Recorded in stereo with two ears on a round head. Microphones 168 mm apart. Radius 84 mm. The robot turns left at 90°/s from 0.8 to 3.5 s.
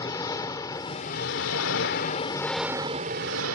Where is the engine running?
160° left; by 3.6 s 85° right.